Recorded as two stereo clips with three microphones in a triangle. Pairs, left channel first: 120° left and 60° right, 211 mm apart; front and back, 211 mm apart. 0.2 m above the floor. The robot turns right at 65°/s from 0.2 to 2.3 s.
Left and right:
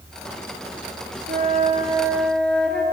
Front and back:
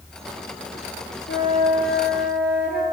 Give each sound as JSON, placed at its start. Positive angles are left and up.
{"t": 1.3, "sound": "a flute", "azimuth_deg": -35, "distance_m": 0.7}